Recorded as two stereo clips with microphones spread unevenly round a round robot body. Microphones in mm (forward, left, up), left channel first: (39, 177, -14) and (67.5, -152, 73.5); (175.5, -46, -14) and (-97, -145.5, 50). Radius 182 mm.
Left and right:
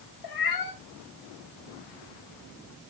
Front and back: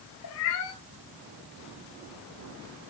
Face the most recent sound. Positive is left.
turn(degrees=70)